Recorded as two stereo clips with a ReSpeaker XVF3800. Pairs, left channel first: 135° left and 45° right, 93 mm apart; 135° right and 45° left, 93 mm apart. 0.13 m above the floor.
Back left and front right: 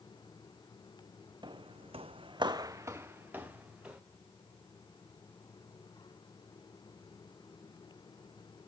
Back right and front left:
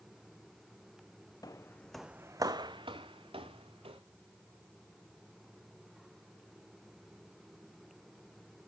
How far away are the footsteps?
About 0.7 m.